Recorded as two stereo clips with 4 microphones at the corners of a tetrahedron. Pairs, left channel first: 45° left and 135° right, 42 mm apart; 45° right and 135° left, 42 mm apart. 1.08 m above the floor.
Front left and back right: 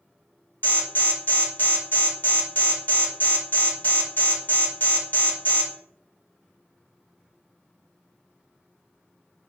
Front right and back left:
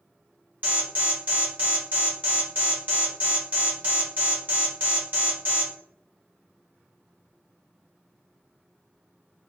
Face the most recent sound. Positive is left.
turn(degrees=90)